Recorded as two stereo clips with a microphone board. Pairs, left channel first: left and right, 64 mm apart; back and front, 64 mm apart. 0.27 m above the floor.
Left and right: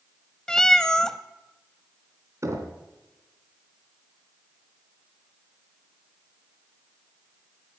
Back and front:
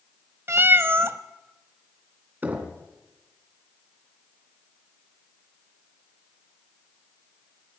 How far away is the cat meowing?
About 0.8 m.